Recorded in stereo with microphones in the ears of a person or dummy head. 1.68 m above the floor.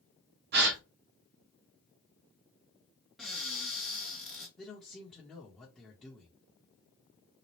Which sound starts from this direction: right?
A gasp, at 0.5 s.